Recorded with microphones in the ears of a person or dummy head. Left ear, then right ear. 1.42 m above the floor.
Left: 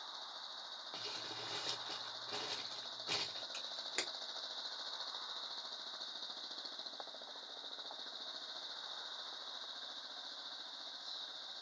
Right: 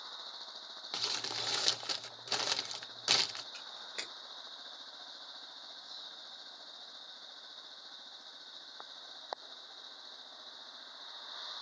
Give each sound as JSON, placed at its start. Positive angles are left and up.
{"t": 0.9, "sound": "crumpling", "side_deg": -70, "distance_m": 0.6}
{"t": 3.5, "sound": "a camera shutter", "side_deg": 45, "distance_m": 1.8}